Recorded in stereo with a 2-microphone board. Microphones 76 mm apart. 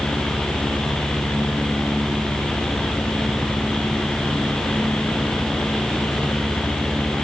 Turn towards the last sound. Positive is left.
No sound to turn to.